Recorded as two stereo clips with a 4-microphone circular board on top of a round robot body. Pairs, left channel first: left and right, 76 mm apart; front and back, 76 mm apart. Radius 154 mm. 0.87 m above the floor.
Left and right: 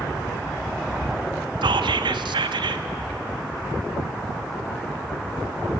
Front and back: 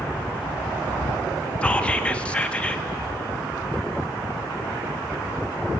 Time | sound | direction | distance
1.6 | whispering | 75° right | 1.3 m